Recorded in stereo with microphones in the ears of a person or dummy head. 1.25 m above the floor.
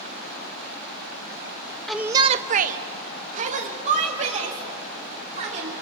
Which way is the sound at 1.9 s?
5° left (ahead or behind).